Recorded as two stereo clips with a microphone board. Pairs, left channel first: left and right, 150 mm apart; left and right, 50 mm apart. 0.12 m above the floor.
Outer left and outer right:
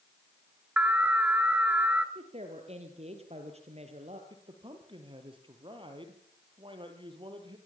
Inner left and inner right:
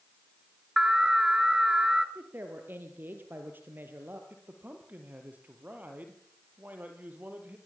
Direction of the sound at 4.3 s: 35° right (ahead or behind).